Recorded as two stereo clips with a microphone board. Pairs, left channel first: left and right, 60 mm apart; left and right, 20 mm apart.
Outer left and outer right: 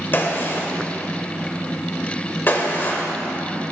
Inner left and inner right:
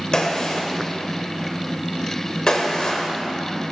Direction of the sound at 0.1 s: 35° left (ahead or behind).